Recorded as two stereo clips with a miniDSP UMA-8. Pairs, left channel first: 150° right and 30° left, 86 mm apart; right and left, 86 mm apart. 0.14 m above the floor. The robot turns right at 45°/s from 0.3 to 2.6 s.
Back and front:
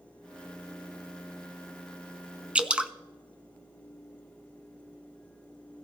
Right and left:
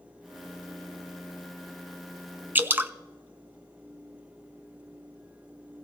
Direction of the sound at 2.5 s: 85° left.